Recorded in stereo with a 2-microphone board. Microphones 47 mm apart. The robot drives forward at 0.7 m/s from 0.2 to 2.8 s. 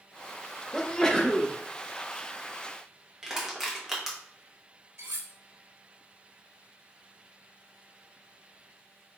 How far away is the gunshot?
No gunshot in this recording.